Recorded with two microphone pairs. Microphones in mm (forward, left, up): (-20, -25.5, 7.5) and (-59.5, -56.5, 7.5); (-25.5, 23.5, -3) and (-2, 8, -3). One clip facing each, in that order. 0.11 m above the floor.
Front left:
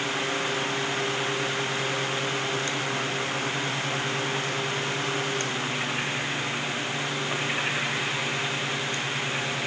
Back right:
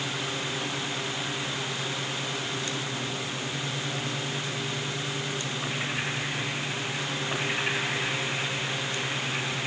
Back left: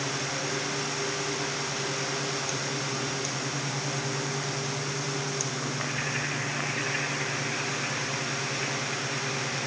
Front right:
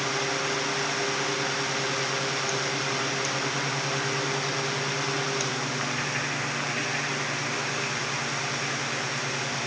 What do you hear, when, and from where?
Only background noise.